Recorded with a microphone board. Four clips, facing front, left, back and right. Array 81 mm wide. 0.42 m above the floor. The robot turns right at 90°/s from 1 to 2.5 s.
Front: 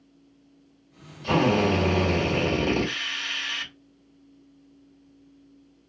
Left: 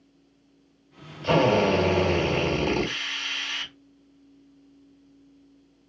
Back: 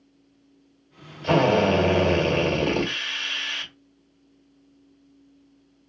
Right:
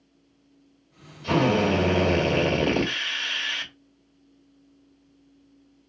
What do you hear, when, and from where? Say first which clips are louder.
1.2 s a drill: left 1 dB, back 3 dB; 140° left, 1.5 m; by 3.7 s 105° right, 1.5 m